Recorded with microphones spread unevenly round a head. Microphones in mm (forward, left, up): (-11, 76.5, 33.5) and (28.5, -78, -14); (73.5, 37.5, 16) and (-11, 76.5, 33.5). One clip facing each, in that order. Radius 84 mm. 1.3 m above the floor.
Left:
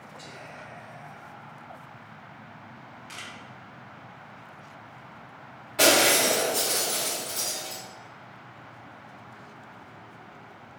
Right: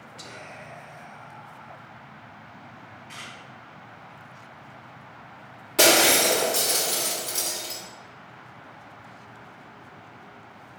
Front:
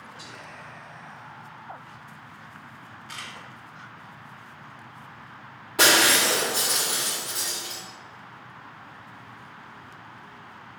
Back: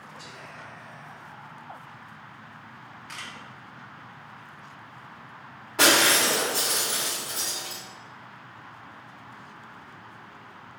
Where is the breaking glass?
110° right, 1.8 m.